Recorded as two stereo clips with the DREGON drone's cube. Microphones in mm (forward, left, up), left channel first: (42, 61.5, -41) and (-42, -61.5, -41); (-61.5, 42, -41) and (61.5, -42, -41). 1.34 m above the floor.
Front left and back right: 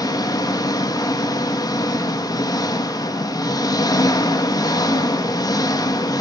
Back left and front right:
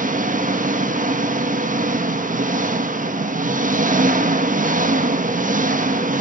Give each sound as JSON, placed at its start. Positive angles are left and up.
{"t": 0.0, "sound": "an engine running", "azimuth_deg": -10, "distance_m": 1.2}